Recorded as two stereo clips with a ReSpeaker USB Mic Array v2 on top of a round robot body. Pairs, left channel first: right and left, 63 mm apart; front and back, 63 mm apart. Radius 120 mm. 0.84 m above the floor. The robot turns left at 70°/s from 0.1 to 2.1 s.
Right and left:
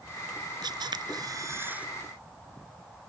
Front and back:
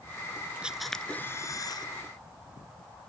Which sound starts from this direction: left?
A camera shutter, at 0.6 s.